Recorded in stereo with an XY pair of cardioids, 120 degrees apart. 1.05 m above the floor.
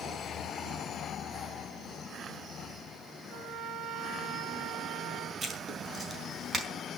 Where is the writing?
30° right, 4.5 m.